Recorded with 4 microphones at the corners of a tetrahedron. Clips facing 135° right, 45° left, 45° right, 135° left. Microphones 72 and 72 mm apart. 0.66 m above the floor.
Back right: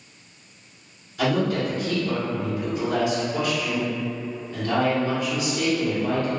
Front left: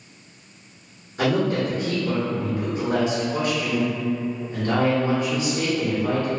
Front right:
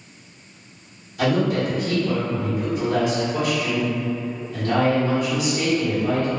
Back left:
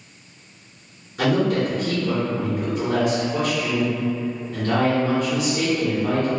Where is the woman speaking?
95° left, 1.8 m.